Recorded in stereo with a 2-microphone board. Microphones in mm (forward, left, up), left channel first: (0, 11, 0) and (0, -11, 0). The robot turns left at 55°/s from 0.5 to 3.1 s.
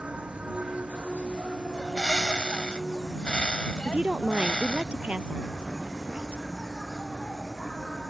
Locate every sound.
0.0 s an insect: 65° right; by 8.1 s 150° left
1.7 s a bird: 155° left; by 4.8 s 80° left
3.9 s a woman speaking: 65° right (ahead or behind)